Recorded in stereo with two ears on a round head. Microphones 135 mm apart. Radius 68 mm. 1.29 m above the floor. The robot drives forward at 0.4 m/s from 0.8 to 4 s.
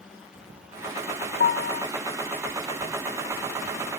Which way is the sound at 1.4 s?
55° left (ahead or behind).